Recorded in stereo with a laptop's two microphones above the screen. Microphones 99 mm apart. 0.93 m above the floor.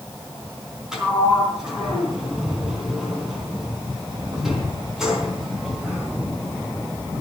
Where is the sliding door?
5° right (ahead or behind), 3.5 m.